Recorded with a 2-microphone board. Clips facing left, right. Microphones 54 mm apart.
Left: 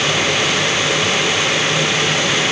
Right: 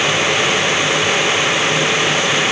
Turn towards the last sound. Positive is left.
No sound to turn to.